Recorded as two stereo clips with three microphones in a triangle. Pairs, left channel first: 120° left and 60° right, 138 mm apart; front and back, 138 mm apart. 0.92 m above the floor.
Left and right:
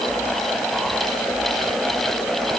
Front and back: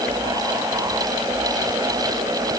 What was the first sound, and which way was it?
Only background noise.